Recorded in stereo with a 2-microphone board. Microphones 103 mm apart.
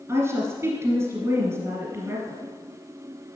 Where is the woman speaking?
30° right (ahead or behind), 1.7 m.